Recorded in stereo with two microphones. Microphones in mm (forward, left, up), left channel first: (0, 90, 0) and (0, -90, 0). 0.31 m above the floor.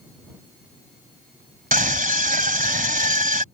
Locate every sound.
1.7 s a scream: 50° right (ahead or behind)